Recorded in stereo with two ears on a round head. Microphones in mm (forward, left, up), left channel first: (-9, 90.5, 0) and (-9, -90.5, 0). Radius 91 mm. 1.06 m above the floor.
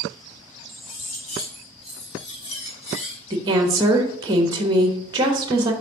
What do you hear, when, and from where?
0.7 s cutlery clinking: 70° left (ahead or behind), 3.5 m
3.3 s a woman speaking: 20° right (ahead or behind), 1.0 m